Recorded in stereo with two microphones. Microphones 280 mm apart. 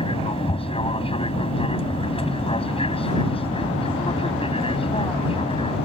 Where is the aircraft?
20° left (ahead or behind).